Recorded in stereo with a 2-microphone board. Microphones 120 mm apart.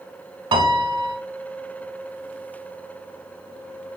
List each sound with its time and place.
0.5 s a piano: 40° right (ahead or behind), 0.7 m